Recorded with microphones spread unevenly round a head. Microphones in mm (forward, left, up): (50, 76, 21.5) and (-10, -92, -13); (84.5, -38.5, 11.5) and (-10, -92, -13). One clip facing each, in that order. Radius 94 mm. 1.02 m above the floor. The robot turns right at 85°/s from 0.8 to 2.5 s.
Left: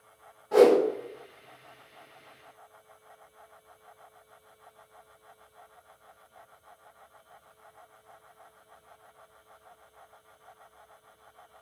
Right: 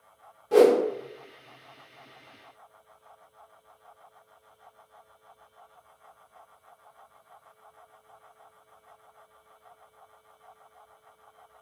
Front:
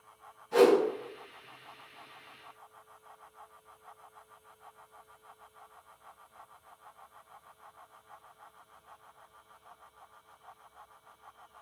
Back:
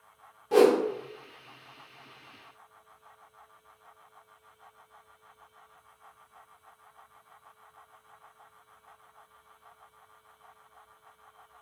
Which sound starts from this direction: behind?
A whoosh, at 0.5 s.